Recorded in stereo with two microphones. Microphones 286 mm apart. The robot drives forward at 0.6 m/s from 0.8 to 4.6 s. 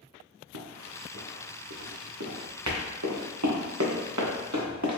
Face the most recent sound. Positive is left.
turn(degrees=-75)  # may be behind; listen again after turning